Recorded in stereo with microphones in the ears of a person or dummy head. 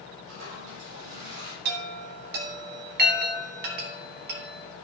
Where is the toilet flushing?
75° right (ahead or behind), 7 m.